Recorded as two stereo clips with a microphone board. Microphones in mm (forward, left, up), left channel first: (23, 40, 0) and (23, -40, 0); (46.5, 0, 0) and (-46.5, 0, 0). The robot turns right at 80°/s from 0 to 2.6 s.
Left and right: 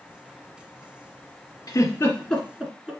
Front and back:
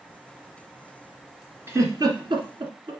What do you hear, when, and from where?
1.7 s a giggle: 115° left, 1.6 m; by 2.9 s 170° right, 1.6 m